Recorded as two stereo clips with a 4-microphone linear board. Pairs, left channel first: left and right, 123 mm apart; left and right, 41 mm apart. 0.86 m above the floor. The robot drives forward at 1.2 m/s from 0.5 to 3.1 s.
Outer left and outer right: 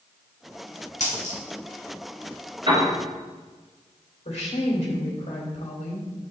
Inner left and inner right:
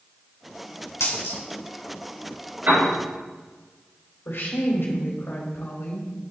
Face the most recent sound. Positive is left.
turn(degrees=70)  # may be behind; listen again after turning